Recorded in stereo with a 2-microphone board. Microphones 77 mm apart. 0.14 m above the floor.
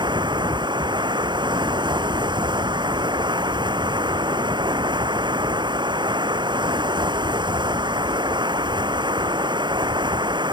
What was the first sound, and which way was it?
Running water, 80° right.